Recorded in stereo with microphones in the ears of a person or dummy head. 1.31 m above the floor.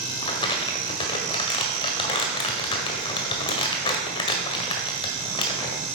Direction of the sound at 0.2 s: 25° left (ahead or behind).